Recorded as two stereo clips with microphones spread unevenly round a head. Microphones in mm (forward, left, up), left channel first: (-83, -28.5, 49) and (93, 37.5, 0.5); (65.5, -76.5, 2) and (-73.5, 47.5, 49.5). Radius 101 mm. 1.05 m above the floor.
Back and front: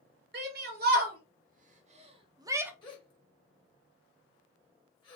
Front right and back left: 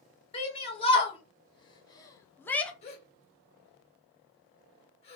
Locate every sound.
0.3 s a shout: 10° left, 1.8 m; by 2.7 s straight ahead, 0.7 m
2.8 s a gasp: 105° right, 1.3 m